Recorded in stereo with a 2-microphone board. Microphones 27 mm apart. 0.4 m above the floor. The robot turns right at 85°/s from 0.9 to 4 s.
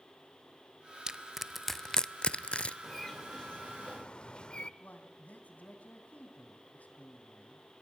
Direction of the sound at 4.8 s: 70° left (ahead or behind).